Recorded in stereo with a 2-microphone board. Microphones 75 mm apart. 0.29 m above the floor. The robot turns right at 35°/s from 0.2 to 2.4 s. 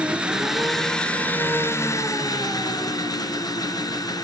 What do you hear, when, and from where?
0.0 s an engine running: 15° right, 2 m; by 4.2 s 60° left, 2 m